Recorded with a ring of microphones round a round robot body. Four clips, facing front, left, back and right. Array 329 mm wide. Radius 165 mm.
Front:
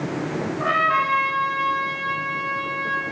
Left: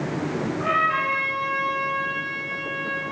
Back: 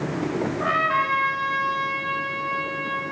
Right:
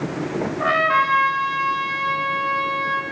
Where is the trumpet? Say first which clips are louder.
Right 5 dB, front 3 dB; 90° right, 2.5 m.